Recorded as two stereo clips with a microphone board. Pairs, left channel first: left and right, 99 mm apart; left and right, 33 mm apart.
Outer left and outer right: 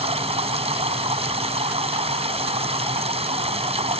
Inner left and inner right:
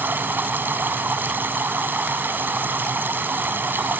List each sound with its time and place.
0.0 s running water: 90° right